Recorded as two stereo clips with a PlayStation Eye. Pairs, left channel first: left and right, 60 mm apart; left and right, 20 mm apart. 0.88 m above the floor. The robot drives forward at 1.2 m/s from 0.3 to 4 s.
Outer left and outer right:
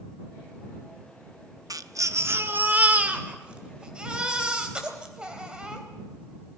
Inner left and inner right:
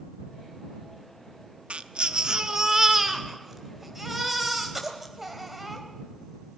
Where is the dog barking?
I don't hear a dog barking.